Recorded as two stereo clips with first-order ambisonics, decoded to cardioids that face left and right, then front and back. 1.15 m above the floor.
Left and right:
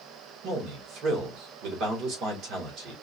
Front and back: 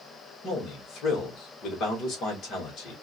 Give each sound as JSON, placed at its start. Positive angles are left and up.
{"t": 0.4, "sound": "a man speaking", "azimuth_deg": -50, "distance_m": 1.8}